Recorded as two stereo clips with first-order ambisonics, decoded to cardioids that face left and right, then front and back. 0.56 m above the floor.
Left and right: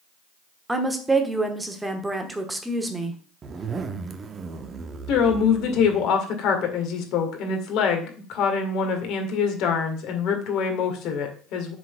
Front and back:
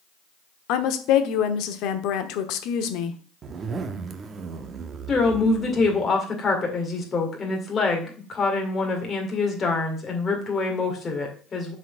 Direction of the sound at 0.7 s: 10° right.